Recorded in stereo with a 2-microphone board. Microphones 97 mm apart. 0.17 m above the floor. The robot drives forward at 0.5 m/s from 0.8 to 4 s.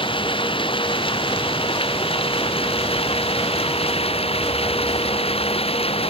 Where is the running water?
60° left (ahead or behind); by 6.1 s 75° left (ahead or behind).